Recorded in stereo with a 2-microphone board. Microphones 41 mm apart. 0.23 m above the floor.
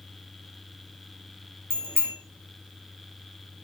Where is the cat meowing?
I don't hear a cat meowing.